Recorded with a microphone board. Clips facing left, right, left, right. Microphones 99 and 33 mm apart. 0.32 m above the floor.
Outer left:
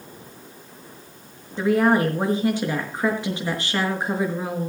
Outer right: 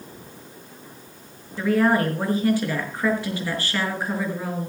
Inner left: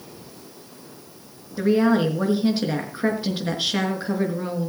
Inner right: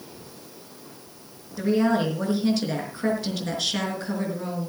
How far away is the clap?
I don't hear a clap.